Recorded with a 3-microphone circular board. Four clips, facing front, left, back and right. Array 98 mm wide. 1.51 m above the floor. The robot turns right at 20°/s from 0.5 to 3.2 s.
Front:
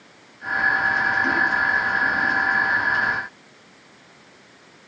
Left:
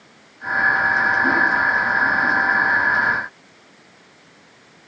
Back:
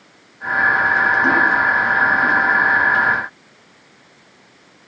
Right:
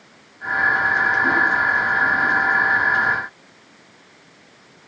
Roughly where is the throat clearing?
No throat clearing in this recording.